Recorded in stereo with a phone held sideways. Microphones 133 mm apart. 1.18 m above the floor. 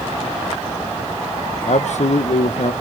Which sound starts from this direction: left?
A man speaking, at 1.6 s.